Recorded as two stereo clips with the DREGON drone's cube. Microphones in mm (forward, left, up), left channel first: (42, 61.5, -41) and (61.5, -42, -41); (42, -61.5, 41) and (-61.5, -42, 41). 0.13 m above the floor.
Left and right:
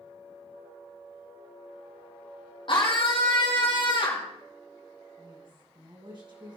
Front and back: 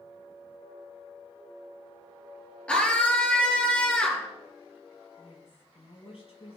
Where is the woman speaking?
35° right, 4 m.